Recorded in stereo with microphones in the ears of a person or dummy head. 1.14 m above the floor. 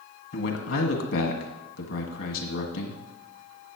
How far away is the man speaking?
About 1.9 m.